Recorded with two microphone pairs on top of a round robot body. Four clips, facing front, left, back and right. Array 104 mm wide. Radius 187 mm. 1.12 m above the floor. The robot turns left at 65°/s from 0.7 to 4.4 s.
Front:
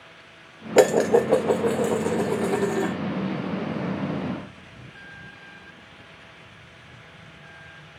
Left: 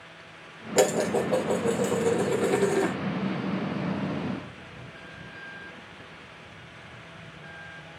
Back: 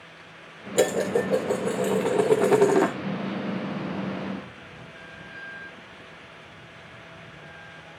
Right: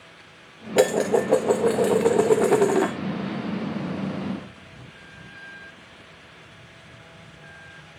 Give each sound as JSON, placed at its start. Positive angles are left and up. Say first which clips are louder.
{"t": 0.8, "sound": "dishes clattering", "louder": "right 4 dB, front 6 dB", "azimuth_deg": -10, "distance_m": 0.8}